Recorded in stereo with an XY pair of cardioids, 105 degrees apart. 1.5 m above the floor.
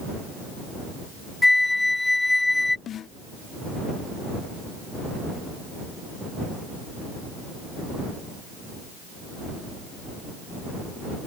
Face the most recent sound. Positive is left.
turn(degrees=55)